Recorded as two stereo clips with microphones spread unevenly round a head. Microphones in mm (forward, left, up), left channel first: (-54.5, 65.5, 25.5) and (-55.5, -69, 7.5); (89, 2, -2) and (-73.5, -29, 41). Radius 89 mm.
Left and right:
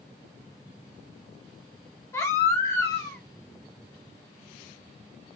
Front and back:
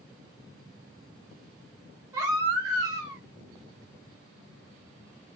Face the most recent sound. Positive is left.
turn(degrees=145)